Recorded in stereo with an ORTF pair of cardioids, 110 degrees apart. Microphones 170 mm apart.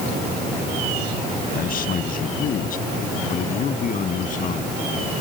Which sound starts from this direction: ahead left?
A man speaking, at 1.5 s.